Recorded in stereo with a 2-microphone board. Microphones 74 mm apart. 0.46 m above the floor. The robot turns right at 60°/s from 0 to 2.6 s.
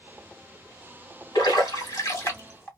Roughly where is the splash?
Left.